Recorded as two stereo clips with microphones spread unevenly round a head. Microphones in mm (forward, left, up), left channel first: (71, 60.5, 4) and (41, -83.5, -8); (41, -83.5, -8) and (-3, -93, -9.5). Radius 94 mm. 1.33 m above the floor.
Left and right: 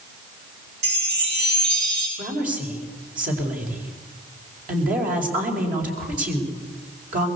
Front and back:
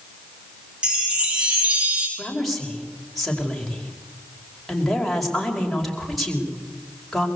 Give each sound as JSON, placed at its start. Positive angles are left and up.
{"t": 0.8, "sound": "a chime", "azimuth_deg": -100, "distance_m": 6.5}
{"t": 2.2, "sound": "a woman speaking", "azimuth_deg": -75, "distance_m": 5.0}